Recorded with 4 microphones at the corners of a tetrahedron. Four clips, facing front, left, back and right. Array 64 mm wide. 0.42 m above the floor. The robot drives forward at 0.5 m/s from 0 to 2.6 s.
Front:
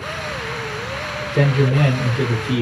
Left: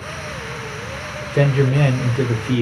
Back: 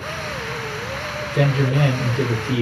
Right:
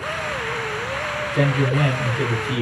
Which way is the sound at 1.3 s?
65° left.